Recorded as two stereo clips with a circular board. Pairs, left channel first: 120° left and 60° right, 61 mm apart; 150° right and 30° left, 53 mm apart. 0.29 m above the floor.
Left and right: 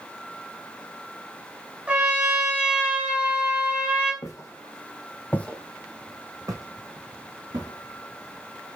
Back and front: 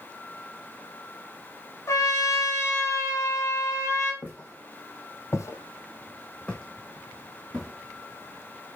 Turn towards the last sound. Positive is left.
turn(degrees=-60)